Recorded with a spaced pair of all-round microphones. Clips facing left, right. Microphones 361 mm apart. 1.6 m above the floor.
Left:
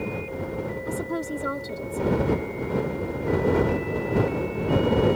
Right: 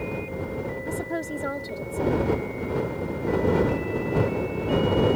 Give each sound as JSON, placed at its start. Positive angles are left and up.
{"t": 0.9, "sound": "a woman speaking", "side_deg": 10}